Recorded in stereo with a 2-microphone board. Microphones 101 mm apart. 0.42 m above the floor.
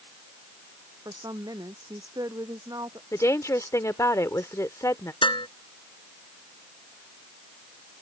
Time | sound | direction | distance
1.1 | a woman speaking | 40° right (ahead or behind) | ?
3.1 | a woman speaking | 30° left (ahead or behind) | ?
5.2 | dishes clattering | 55° left (ahead or behind) | ?